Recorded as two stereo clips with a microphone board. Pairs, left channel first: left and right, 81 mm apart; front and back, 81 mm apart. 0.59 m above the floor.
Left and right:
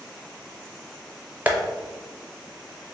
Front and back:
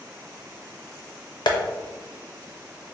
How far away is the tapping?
About 0.6 m.